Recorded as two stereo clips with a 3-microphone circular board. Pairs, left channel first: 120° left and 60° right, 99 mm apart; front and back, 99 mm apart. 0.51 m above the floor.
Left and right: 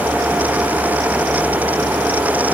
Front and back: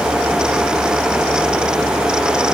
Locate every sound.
Only background noise.